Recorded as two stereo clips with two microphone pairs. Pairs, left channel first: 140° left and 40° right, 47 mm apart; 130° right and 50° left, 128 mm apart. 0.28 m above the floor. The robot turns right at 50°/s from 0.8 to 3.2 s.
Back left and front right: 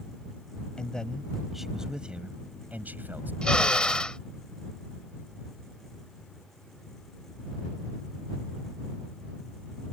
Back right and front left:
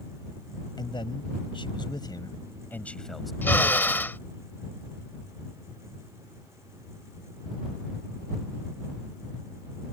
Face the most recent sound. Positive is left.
turn(degrees=175)